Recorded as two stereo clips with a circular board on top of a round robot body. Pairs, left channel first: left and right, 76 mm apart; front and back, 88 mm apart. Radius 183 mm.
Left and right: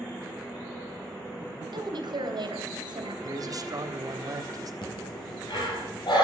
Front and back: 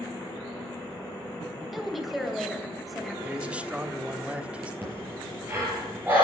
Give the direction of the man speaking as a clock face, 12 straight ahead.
4 o'clock.